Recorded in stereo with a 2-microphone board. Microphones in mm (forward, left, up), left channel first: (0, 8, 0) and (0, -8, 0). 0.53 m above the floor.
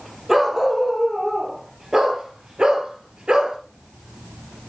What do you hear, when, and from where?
0.3 s a dog barking: 25° right (ahead or behind), 5 m; by 3.6 s 75° right (ahead or behind), 3.5 m